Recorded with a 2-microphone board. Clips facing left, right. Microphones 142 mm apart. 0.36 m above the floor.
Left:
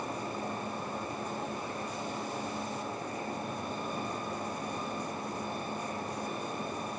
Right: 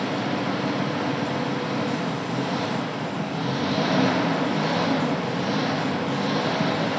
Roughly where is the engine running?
Right.